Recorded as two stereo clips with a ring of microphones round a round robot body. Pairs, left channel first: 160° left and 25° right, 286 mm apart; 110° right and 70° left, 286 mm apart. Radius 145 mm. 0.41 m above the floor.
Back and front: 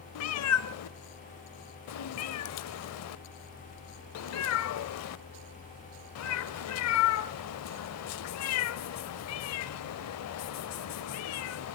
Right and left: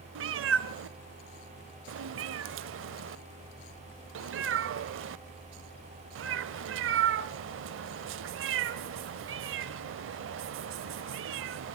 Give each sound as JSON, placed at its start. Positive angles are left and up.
{"t": 0.1, "sound": "a cat meowing", "azimuth_deg": 120, "distance_m": 0.5}